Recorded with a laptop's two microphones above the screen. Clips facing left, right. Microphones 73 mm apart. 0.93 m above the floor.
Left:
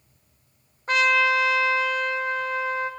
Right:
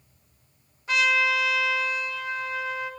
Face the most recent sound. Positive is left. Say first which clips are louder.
# left 3 dB
turn(degrees=40)  # may be behind; listen again after turning